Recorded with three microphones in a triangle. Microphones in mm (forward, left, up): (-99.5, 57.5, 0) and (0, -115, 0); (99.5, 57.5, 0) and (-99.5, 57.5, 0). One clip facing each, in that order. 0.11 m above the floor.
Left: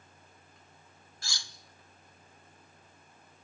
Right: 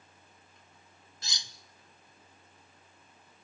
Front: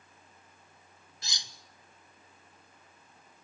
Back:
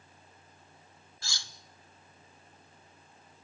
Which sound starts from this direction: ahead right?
Cutlery clinking, at 1.2 s.